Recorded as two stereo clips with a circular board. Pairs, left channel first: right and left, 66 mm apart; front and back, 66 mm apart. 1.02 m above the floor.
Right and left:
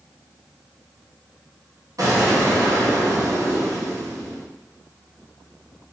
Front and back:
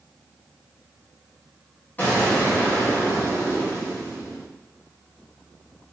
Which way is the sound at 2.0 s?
65° left.